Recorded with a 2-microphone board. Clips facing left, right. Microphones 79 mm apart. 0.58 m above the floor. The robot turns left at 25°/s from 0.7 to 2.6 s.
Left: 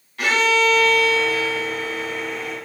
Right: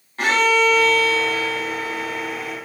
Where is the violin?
35° right, 2.5 m; by 2.6 s 80° right, 2.5 m.